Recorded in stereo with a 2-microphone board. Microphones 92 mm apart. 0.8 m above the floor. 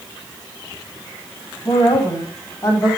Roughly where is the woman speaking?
Left.